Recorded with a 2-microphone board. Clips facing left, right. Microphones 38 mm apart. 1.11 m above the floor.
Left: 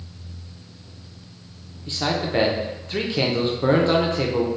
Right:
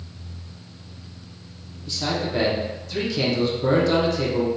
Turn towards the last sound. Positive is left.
turn(degrees=35)  # may be behind; listen again after turning